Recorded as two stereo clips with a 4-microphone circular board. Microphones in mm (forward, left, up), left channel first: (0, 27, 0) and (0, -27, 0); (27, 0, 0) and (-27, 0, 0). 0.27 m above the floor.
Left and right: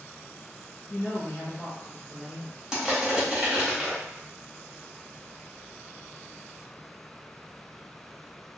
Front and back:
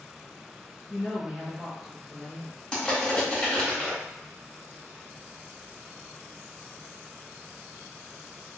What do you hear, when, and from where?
0.9 s a woman speaking: 120° left, 1.0 m; by 2.6 s 105° left, 1.6 m
2.7 s crushing: 35° right, 1.2 m